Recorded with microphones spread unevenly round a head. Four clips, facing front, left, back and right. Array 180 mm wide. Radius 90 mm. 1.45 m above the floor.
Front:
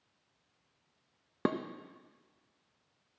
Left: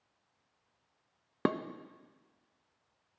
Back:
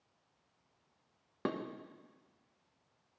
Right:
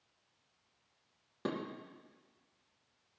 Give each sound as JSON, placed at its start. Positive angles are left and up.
{"t": 1.4, "sound": "dishes clattering", "azimuth_deg": 60, "distance_m": 0.8}